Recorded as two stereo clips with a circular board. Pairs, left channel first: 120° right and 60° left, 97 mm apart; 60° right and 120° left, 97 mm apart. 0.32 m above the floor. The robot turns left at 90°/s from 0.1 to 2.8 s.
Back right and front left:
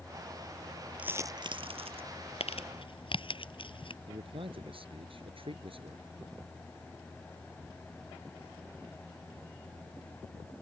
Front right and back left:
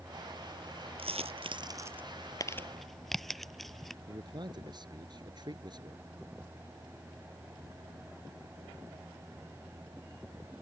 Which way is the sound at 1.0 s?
135° left.